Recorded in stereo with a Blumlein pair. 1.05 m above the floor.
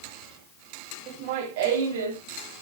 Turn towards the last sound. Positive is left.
turn(degrees=-70)